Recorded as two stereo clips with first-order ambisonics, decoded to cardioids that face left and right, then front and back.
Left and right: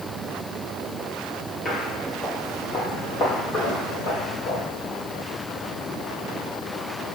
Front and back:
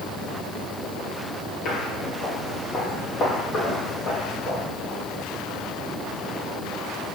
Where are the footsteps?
30° left, 1.9 m; by 4.7 s 55° left, 4.5 m.